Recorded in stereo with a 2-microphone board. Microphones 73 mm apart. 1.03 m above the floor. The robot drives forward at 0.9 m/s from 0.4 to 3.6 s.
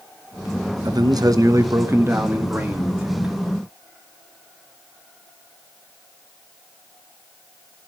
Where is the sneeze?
No sneeze in this recording.